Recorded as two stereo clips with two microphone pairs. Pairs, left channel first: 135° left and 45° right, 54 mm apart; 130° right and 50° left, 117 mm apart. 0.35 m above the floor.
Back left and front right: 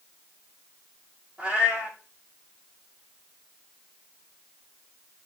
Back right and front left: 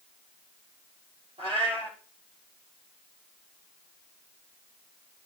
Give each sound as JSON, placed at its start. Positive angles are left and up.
{"t": 1.4, "sound": "a cat meowing", "azimuth_deg": 25, "distance_m": 3.5}